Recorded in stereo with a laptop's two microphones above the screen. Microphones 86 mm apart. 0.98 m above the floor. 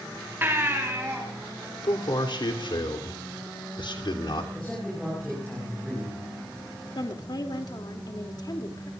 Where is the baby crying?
25° right (ahead or behind), 3.5 m.